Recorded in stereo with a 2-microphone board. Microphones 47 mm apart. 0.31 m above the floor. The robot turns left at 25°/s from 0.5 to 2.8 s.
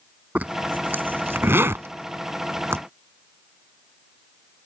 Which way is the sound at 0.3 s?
40° right (ahead or behind).